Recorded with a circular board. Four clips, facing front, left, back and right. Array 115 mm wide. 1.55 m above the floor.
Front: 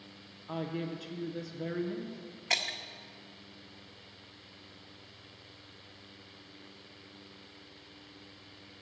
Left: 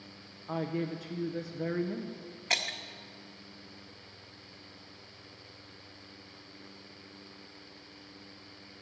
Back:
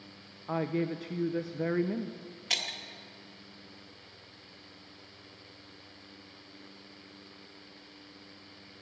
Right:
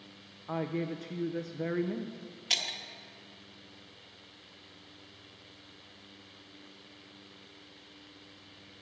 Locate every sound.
0.5 s a woman speaking: 170° right, 0.5 m
2.5 s breaking glass: 55° left, 1.0 m